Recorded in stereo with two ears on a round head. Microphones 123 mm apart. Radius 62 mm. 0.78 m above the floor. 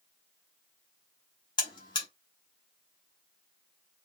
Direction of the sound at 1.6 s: 30° left (ahead or behind).